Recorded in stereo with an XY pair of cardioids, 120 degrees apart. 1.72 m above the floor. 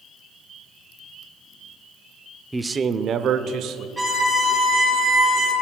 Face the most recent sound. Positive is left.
turn(degrees=-15)